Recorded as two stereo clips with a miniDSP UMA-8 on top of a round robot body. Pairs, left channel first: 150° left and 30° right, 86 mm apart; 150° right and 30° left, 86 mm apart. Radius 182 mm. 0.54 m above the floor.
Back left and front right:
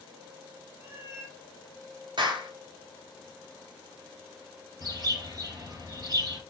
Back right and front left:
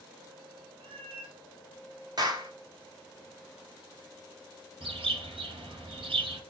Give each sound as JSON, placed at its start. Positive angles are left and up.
{"t": 0.8, "sound": "a cat meowing", "azimuth_deg": 30, "distance_m": 2.0}
{"t": 2.2, "sound": "a clap", "azimuth_deg": -5, "distance_m": 3.0}
{"t": 4.8, "sound": "a bird", "azimuth_deg": 20, "distance_m": 4.0}